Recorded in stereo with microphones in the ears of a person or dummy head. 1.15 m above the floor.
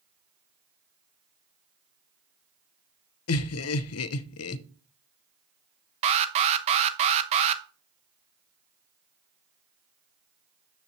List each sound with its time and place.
3.3 s laughter: 65° left (ahead or behind), 0.7 m
6.0 s an alarm: 30° right (ahead or behind), 0.8 m